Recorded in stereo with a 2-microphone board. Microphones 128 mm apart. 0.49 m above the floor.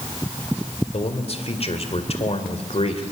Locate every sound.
0.9 s a man speaking: 50° left (ahead or behind), 2 m